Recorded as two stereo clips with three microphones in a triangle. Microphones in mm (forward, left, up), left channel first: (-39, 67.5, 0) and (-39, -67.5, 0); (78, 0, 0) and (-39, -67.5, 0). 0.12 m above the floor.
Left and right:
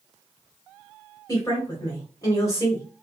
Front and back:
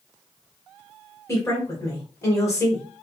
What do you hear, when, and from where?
1.3 s a woman speaking: 65° left, 1.5 m